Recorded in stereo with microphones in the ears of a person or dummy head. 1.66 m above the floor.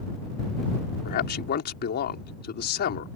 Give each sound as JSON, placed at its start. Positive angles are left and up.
{"t": 1.1, "sound": "a man speaking", "side_deg": 50}